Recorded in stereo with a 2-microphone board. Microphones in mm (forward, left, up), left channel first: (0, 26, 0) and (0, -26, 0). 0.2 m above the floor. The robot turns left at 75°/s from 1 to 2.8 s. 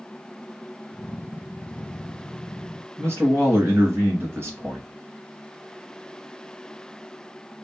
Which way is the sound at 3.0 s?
50° right (ahead or behind).